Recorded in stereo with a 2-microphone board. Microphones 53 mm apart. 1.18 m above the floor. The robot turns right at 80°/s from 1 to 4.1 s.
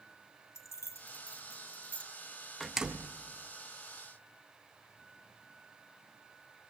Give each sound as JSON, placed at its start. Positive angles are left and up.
{"t": 0.6, "sound": "keys jangling", "side_deg": 75, "distance_m": 1.3}
{"t": 2.6, "sound": "a door slam", "azimuth_deg": 180, "distance_m": 0.8}